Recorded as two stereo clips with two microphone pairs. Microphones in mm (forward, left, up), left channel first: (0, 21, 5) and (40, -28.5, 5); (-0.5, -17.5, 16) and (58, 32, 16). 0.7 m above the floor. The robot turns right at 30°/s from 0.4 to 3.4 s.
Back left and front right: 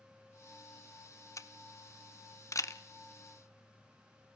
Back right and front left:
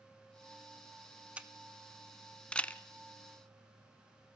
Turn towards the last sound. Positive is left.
turn(degrees=170)